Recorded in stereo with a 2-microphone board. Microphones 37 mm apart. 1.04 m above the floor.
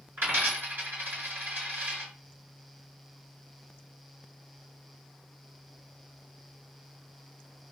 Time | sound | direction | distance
0.2 | a dropped coin | 70° right (ahead or behind) | 2.0 m